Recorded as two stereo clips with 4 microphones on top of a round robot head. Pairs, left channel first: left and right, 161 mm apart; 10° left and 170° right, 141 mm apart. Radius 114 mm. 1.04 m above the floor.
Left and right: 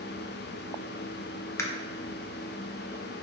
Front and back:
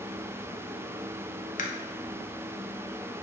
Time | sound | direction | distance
1.6 | a camera shutter | 20° left | 1.3 m